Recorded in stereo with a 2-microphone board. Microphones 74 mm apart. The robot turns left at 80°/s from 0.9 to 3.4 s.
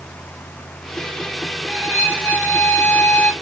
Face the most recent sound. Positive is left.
turn(degrees=45)